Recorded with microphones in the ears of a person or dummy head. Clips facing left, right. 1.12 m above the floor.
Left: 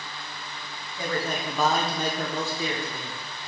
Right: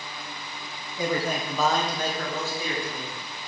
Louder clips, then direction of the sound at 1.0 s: Right 2 dB; 15° right (ahead or behind).